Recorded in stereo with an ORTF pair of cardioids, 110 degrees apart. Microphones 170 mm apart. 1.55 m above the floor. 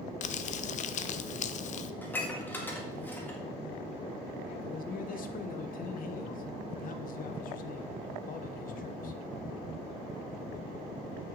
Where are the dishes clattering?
10° left, 1.8 m.